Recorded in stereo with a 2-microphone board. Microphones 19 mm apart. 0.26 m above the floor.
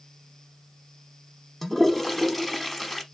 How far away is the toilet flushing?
About 0.8 m.